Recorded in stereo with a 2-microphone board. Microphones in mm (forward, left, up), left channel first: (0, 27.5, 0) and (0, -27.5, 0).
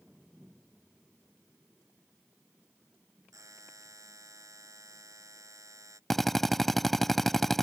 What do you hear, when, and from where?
3.3 s a buzzer: 80° right
6.1 s a drill: 5° left (ahead or behind)